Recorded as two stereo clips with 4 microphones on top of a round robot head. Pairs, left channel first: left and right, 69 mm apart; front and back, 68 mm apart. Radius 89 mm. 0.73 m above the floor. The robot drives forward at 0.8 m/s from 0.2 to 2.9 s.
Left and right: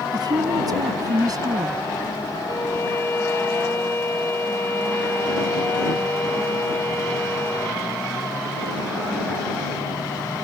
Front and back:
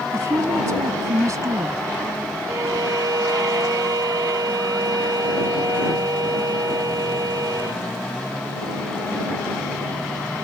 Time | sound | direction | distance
0.1 | a woman speaking | 125° right | ?
2.5 | a violin | 140° left | ?